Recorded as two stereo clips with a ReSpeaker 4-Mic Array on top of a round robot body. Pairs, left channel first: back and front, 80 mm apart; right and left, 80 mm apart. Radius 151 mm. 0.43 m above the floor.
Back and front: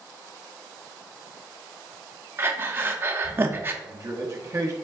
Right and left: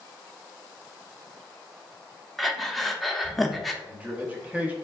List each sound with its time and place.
2.4 s breathing: straight ahead, 0.7 m
3.8 s a man speaking: 25° left, 1.0 m